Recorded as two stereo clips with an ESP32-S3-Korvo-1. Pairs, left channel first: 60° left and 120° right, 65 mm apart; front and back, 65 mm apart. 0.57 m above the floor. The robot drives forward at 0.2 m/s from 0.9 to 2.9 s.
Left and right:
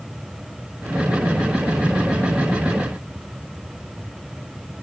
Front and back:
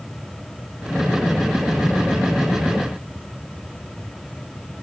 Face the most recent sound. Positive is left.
No sound to turn to.